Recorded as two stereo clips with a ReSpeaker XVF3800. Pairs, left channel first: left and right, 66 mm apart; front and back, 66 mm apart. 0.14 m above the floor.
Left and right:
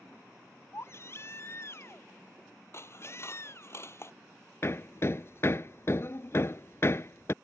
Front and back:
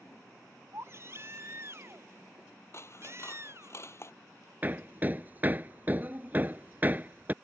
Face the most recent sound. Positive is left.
turn(degrees=130)